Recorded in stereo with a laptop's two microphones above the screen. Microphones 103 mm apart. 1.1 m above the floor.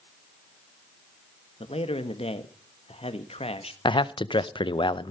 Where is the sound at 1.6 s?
70° left (ahead or behind), 1.4 m.